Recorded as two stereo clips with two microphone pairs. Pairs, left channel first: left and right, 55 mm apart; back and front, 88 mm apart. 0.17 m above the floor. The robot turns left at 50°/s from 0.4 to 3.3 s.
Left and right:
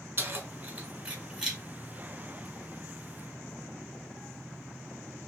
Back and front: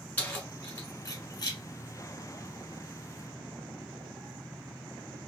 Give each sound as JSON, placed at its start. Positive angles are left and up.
{"t": 0.2, "sound": "keys jangling", "azimuth_deg": -115, "distance_m": 1.5}